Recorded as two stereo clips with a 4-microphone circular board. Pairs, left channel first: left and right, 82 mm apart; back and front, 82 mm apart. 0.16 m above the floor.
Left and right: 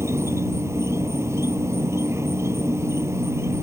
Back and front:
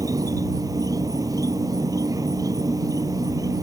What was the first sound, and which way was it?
An insect, 40° right.